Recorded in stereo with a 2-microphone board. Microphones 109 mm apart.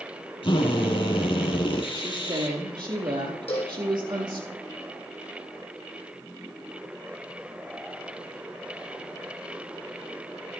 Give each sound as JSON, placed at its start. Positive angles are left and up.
{"t": 0.4, "sound": "a drill", "side_deg": 55, "distance_m": 2.5}
{"t": 1.9, "sound": "a woman speaking", "side_deg": -40, "distance_m": 4.0}
{"t": 3.5, "sound": "a cowbell", "side_deg": 65, "distance_m": 3.0}